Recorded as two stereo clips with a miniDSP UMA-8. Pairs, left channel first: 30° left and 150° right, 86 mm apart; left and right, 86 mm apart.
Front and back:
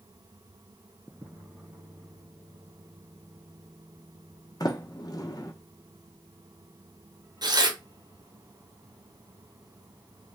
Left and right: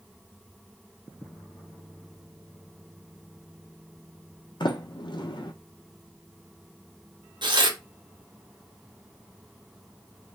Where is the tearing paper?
115° right, 0.8 m.